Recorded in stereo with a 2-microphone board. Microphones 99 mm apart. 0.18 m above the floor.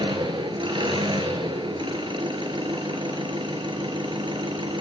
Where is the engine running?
55° right (ahead or behind), 1.9 m.